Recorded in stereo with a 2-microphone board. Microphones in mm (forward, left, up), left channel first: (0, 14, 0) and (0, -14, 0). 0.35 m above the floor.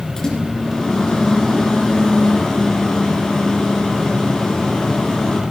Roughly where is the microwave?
Left.